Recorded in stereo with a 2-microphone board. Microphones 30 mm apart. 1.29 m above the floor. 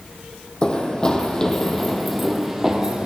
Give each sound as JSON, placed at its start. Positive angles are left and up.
{"t": 0.6, "sound": "running footsteps", "side_deg": 25, "distance_m": 2.0}